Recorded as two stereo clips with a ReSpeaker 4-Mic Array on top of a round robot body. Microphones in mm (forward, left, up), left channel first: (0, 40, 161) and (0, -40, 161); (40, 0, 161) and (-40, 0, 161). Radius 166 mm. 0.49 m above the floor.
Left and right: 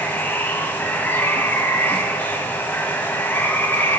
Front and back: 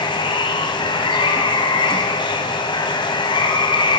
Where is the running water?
20° left, 1.2 m.